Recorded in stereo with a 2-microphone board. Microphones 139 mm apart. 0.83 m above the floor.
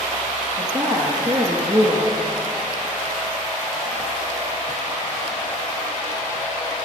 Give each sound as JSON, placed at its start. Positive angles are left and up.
{"t": 0.6, "sound": "a woman speaking", "side_deg": -30, "distance_m": 1.1}